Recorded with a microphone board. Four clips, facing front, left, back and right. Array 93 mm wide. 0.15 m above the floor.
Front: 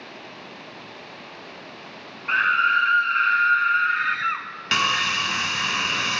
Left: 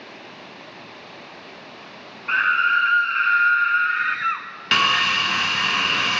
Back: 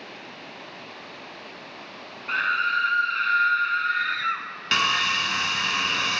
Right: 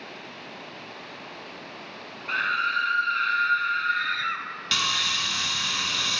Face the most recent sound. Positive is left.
turn(degrees=85)